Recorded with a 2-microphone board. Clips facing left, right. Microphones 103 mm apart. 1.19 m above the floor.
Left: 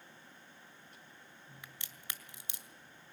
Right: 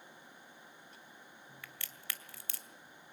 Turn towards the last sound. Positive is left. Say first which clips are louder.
# right 1 dB
turn(degrees=20)  # may be behind; listen again after turning